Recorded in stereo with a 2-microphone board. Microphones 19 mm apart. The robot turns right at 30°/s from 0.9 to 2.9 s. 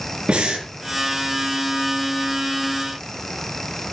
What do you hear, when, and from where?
0.3 s breathing: 65° right (ahead or behind), 4.5 m